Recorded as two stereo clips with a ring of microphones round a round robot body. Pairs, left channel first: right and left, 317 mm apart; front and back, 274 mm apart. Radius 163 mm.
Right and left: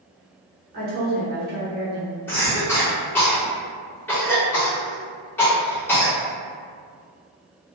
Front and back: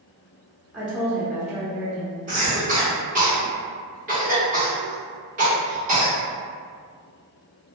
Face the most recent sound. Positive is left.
turn(degrees=-165)